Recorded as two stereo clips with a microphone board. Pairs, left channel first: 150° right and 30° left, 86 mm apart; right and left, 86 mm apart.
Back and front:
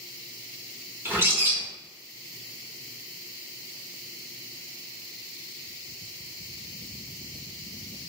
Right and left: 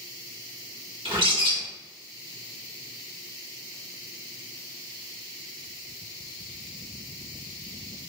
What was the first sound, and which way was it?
A bird, 95° left.